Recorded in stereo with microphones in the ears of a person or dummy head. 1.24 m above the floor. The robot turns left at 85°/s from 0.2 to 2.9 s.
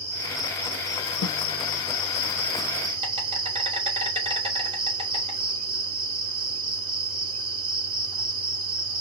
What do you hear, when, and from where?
0.0 s an insect: 160° right, 1.9 m; by 9.0 s 30° right, 1.9 m
1.2 s a snare drum: 80° left, 0.9 m; by 1.4 s 70° left (ahead or behind), 0.9 m